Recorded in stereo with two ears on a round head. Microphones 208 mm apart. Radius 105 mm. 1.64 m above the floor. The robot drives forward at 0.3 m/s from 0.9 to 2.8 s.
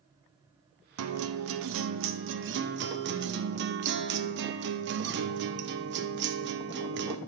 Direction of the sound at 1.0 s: 75° right (ahead or behind).